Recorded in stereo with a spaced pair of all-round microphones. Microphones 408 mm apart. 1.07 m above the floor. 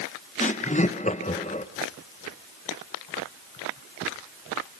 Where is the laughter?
15° left (ahead or behind), 0.9 m.